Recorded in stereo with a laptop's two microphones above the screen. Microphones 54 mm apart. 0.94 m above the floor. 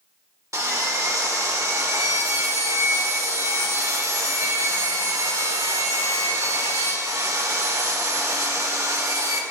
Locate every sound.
0.5 s sawing: 70° right (ahead or behind), 1.5 m